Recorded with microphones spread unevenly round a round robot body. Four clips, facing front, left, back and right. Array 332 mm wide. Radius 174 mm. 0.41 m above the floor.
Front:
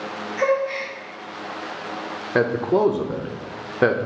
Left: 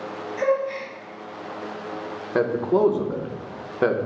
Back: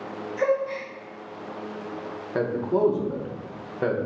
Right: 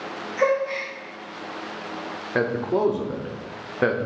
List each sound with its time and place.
0.4 s a gasp: 140° right, 2 m
2.4 s a man speaking: 10° left, 0.8 m